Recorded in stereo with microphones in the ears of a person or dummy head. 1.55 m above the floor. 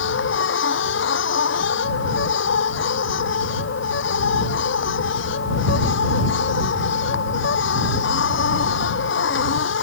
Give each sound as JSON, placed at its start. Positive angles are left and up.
{"t": 0.0, "sound": "a machine running", "side_deg": 70}